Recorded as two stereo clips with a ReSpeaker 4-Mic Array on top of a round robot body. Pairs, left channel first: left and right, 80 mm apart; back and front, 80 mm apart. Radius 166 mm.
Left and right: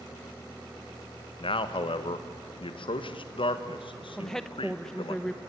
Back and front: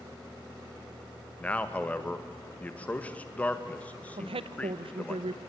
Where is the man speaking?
105° left, 1.5 m.